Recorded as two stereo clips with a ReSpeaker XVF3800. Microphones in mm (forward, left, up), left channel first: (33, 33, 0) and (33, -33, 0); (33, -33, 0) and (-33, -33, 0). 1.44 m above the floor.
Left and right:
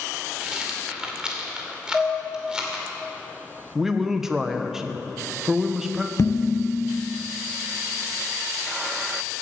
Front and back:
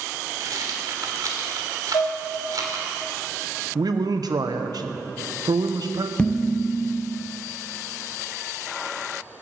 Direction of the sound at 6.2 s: 70° left.